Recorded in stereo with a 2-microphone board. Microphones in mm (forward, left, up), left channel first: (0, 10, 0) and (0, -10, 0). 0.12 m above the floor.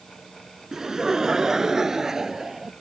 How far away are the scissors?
No scissors in this recording.